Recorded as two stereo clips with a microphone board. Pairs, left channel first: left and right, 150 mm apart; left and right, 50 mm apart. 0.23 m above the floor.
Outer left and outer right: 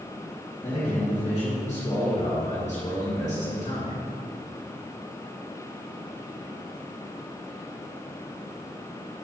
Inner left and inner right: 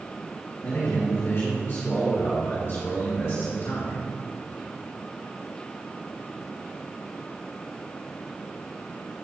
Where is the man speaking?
50° left (ahead or behind), 2.5 m.